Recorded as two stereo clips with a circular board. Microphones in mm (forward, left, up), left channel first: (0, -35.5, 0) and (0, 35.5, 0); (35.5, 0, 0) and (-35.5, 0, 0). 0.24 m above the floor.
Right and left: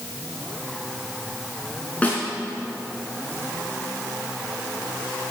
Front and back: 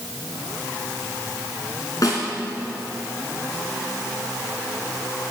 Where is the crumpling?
I don't hear crumpling.